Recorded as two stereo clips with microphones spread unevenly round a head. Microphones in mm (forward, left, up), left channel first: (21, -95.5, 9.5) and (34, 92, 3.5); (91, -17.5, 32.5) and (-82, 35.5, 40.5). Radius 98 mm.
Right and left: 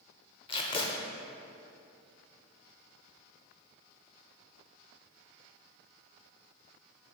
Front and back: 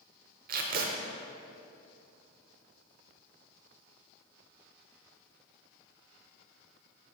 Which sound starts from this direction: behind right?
Tape being pulled, at 0.5 s.